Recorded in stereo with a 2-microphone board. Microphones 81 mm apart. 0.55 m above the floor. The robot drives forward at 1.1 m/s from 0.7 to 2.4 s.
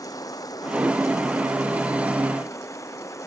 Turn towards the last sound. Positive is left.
turn(degrees=40)  # may be behind; listen again after turning